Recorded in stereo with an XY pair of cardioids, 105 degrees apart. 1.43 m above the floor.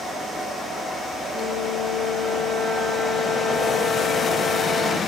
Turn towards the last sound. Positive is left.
turn(degrees=45)